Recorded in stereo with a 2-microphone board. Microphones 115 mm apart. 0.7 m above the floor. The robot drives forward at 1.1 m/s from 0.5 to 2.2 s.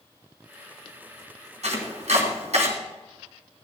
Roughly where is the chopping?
Right.